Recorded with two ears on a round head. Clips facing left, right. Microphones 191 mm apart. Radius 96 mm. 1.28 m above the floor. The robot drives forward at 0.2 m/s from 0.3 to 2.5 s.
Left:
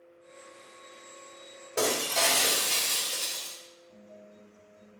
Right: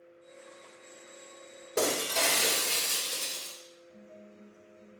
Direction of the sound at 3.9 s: 30° right (ahead or behind).